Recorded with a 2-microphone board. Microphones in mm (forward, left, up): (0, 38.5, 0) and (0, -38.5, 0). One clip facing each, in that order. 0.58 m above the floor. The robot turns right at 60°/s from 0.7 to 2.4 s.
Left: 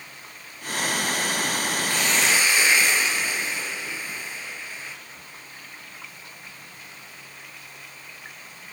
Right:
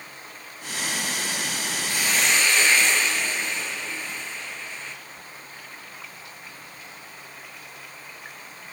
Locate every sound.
1.9 s a hiss: 15° right, 3.5 m; by 5.0 s 15° left, 3.5 m